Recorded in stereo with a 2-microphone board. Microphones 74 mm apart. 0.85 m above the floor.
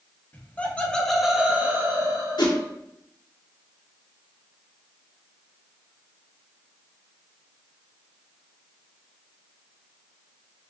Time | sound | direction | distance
0.3 | laughter | 25° left (ahead or behind) | 1.0 m
2.4 | a whoosh | 70° left (ahead or behind) | 0.8 m